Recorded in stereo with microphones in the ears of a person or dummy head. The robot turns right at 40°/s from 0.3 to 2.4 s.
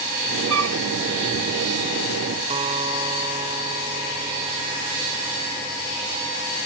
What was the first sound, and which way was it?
A flute, 85° right.